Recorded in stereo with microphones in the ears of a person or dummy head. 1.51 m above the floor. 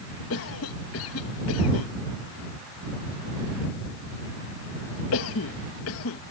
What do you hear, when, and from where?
0.3 s a cough: 75° left (ahead or behind)